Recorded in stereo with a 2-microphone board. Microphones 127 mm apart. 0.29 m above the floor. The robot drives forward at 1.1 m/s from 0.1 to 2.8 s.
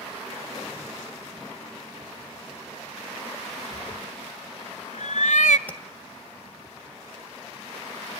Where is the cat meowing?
85° left, 0.6 m.